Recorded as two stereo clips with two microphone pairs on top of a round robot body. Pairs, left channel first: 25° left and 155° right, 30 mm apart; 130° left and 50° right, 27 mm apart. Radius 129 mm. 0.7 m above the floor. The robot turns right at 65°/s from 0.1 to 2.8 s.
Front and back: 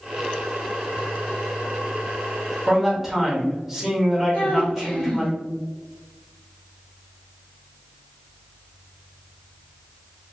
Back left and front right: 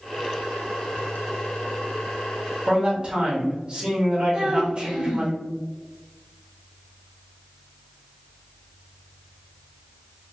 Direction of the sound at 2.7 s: 90° right.